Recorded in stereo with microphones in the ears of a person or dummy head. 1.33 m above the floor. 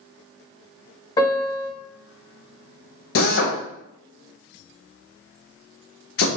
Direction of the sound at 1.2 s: 30° left (ahead or behind).